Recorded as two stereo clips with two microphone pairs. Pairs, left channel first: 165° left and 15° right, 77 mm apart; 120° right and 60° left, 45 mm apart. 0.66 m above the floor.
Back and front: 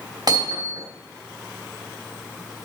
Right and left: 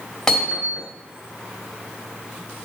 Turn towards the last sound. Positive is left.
turn(degrees=-45)